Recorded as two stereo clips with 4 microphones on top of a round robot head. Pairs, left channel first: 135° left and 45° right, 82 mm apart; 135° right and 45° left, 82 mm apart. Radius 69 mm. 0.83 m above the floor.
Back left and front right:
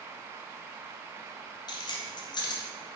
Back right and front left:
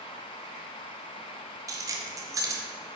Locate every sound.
1.7 s keys jangling: 100° left, 1.0 m